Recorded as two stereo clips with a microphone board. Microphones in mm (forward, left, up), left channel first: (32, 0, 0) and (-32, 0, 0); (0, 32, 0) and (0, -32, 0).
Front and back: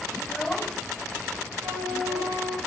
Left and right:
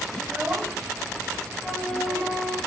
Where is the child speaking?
55° right, 0.8 m; by 2.4 s 90° right, 2 m.